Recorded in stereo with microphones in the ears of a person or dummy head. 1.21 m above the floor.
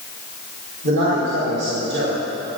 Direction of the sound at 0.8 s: 60° right (ahead or behind).